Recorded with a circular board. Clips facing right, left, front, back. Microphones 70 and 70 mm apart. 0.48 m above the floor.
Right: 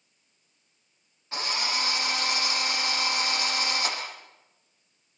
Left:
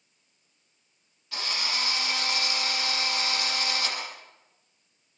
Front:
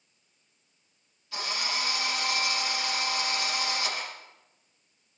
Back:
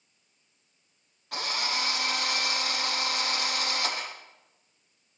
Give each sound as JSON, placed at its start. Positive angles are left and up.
{"t": 1.3, "sound": "a drill", "azimuth_deg": -150, "distance_m": 8.0}